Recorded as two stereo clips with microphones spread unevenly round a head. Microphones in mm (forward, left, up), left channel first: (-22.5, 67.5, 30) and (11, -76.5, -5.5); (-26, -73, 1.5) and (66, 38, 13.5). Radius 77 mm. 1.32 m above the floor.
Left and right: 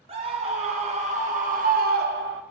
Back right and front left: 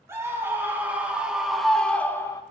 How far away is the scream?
About 2.5 m.